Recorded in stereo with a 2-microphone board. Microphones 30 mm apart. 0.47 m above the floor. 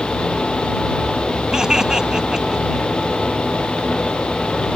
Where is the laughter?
20° right (ahead or behind).